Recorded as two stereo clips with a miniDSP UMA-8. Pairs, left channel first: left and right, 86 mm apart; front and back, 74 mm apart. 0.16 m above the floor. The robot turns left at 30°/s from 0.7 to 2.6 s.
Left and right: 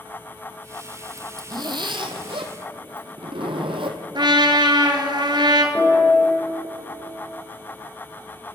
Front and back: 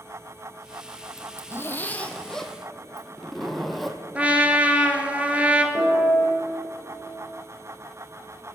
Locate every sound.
1.2 s a zipper: 45° right, 0.9 m; by 4.0 s 90° right, 0.9 m
4.2 s a trumpet: 110° right, 1.0 m
5.8 s a piano: 170° left, 4.5 m